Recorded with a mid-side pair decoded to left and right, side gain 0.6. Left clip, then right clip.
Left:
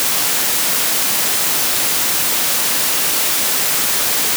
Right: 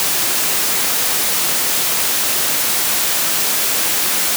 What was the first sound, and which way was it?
Only background noise.